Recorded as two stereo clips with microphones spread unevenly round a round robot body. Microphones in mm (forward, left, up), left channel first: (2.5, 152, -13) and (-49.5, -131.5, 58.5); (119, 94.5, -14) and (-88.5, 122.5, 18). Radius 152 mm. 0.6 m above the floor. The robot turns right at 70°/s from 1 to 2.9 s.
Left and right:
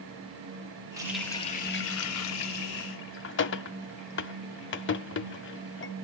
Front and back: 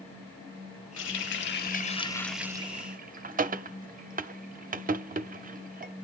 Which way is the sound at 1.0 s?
15° right.